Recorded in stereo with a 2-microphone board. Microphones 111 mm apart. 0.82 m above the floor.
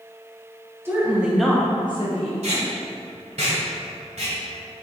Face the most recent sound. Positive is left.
turn(degrees=-75)  # may be behind; listen again after turning